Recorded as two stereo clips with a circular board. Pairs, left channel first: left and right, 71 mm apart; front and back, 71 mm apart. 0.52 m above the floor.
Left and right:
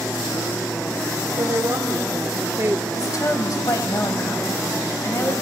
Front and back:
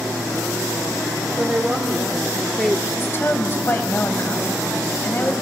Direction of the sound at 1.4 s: 110° right.